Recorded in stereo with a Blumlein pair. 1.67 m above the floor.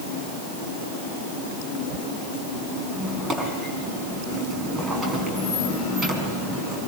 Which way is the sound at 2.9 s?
20° right.